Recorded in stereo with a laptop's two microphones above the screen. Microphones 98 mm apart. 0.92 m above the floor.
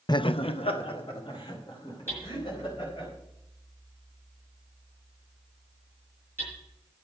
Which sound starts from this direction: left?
Laughter, at 0.1 s.